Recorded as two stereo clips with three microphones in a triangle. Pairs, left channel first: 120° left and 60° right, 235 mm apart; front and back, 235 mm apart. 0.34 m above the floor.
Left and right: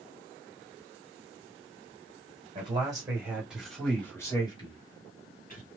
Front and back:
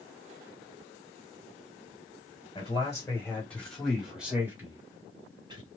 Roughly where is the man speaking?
Ahead right.